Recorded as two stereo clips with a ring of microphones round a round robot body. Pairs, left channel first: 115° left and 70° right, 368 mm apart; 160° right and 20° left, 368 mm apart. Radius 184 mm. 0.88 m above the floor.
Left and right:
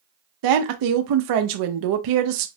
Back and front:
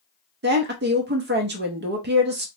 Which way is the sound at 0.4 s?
40° right.